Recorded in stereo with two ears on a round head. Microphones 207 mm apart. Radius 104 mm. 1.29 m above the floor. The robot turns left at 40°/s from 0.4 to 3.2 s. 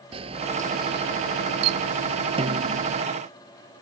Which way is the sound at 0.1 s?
25° right.